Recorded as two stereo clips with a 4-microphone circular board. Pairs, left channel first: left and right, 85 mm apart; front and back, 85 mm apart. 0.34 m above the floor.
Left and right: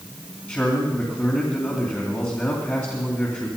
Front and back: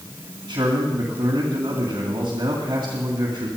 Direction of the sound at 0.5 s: 150° left.